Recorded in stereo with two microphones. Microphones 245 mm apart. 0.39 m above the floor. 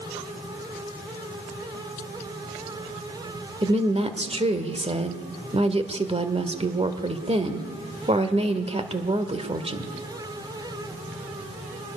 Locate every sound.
3.6 s a woman speaking: 25° right (ahead or behind), 1.6 m